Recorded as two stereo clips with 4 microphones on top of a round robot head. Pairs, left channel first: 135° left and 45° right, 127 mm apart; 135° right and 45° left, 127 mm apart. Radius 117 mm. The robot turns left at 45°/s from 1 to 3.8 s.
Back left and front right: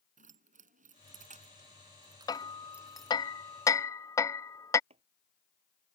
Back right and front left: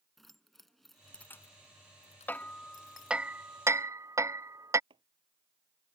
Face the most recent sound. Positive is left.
turn(degrees=-5)